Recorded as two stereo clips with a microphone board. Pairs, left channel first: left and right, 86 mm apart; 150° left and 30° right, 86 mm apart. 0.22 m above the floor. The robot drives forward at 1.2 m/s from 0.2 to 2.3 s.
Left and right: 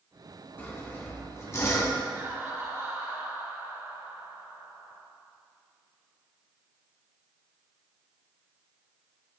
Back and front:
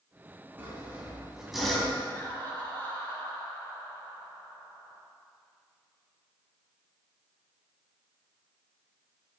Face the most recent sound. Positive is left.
turn(degrees=-145)